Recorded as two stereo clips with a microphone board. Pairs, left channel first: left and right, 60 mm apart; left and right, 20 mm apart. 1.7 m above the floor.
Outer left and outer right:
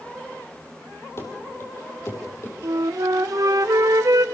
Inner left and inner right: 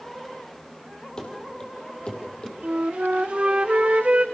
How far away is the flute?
About 0.6 m.